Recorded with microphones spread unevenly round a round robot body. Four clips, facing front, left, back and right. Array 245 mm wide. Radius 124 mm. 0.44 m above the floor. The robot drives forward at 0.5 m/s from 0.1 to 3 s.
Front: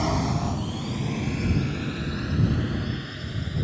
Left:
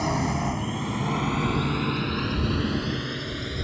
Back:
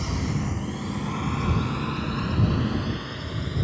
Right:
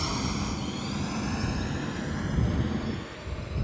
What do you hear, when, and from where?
0.0 s a drone: 30° left; by 3.6 s 90° left